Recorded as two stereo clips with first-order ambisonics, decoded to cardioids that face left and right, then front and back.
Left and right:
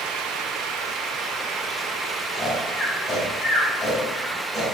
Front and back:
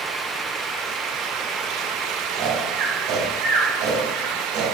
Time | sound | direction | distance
2.3 | snoring | 165° left | 2.5 m